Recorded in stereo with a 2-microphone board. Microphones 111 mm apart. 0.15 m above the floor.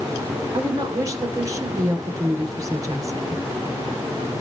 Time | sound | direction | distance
0.5 | a woman speaking | 30° right (ahead or behind) | 2 m